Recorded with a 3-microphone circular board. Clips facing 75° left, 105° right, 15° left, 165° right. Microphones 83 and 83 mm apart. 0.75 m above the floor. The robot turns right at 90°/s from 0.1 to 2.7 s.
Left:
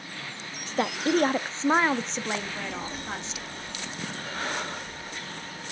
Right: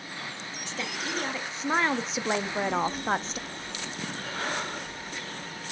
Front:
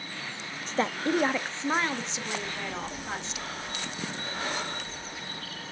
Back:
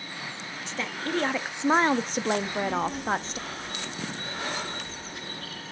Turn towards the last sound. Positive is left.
turn(degrees=-175)